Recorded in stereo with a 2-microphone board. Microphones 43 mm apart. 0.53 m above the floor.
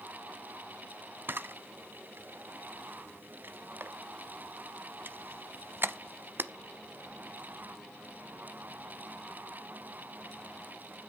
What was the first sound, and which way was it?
A camera shutter, 55° right (ahead or behind).